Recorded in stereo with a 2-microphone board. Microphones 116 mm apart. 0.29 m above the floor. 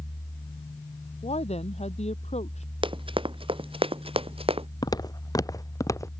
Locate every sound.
1.2 s a woman speaking: 65° left (ahead or behind); by 2.7 s 70° left (ahead or behind)
2.8 s running footsteps: 45° right (ahead or behind); by 4.7 s 55° right (ahead or behind)
4.8 s footsteps: 35° left (ahead or behind); by 6.1 s 25° left (ahead or behind)